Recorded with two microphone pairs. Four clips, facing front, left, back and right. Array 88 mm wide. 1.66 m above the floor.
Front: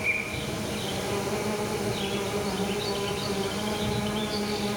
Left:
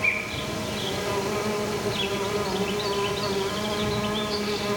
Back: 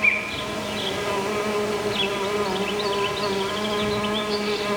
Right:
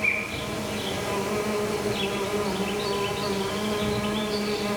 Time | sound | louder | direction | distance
0.0 | an insect | even, back 5 dB | 170° left | 5 m